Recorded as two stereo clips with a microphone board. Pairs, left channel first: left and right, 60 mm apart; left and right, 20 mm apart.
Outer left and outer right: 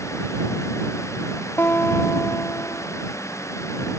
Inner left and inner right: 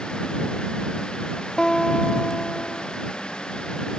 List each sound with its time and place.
1.6 s a guitar: 40° left (ahead or behind)